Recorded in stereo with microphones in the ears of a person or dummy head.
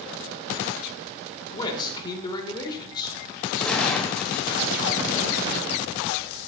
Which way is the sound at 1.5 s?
25° left (ahead or behind).